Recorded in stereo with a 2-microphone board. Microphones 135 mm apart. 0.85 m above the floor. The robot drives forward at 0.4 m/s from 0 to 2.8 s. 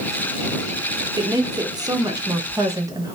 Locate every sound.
1.2 s a woman speaking: 30° right (ahead or behind), 0.9 m; by 3.2 s 25° right (ahead or behind), 1.0 m